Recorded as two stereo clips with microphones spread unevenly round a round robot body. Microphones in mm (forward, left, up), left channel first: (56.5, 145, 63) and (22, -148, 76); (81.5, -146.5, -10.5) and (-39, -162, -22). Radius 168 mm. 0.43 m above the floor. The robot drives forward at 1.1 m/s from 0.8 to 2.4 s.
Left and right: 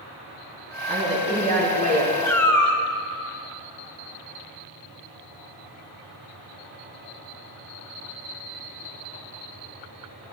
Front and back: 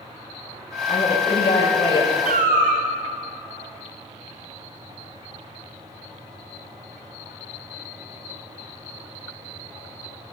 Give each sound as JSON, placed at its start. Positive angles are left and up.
{"t": 0.9, "sound": "a woman speaking", "azimuth_deg": -40, "distance_m": 5.5}
{"t": 2.2, "sound": "a cat meowing", "azimuth_deg": 165, "distance_m": 1.4}